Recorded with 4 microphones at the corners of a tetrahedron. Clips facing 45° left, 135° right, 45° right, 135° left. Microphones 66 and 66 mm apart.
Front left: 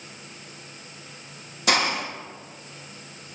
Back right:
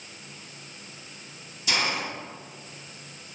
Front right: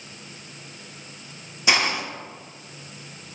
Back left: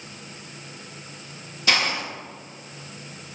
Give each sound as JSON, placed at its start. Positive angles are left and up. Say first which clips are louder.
{"t": 1.7, "sound": "a hiss", "louder": "front left 4 dB, front right 1 dB", "azimuth_deg": 25, "distance_m": 0.9}